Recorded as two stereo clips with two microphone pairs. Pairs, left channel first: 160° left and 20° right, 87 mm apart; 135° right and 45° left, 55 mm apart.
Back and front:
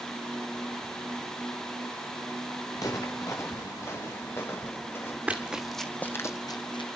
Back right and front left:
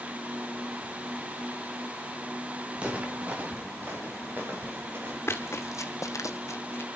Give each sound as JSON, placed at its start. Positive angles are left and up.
{"t": 2.8, "sound": "footsteps", "azimuth_deg": 115, "distance_m": 2.0}
{"t": 5.3, "sound": "running footsteps", "azimuth_deg": -95, "distance_m": 1.4}